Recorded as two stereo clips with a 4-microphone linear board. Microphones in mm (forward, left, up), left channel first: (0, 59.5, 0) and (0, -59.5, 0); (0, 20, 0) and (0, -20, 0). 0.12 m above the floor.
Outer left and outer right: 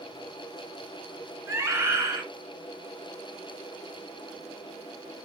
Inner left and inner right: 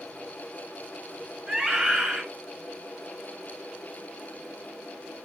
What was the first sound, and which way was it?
A scream, 25° right (ahead or behind).